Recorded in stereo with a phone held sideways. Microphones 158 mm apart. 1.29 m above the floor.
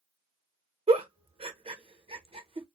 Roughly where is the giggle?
Right.